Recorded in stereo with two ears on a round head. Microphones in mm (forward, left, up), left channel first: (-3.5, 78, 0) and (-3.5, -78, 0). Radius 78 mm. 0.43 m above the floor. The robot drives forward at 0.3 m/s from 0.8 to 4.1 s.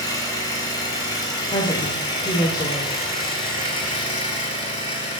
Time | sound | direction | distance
0.0 | an engine running | 20° left (ahead or behind) | 4.5 m
1.5 | a woman speaking | 25° left (ahead or behind) | 1.2 m